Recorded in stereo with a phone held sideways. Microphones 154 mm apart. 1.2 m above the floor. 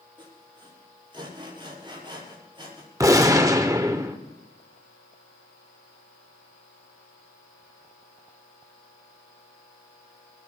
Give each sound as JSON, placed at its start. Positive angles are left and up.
{"t": 0.2, "sound": "sawing", "side_deg": -30, "distance_m": 7.0}
{"t": 3.0, "sound": "a gunshot", "side_deg": -20, "distance_m": 1.2}